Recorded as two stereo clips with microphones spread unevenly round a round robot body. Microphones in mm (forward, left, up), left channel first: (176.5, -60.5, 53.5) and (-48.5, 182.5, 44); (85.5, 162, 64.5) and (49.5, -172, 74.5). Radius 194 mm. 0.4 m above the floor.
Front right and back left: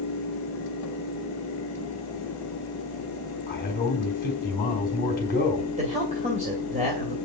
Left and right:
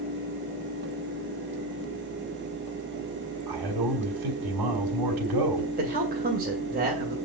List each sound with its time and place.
3.5 s a man speaking: 115° right, 3 m
5.8 s a man speaking: 160° right, 2 m